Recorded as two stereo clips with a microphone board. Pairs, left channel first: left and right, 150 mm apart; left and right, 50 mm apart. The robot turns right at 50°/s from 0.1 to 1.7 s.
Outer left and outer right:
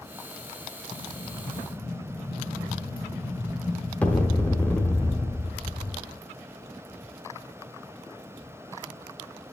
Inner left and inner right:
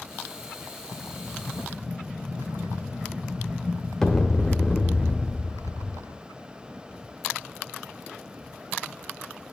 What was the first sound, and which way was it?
An explosion, 25° right.